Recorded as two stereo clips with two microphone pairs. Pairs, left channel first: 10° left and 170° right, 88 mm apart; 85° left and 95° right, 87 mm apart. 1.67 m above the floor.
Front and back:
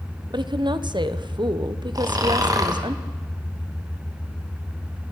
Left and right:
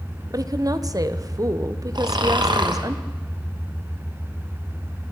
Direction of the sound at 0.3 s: 140° right.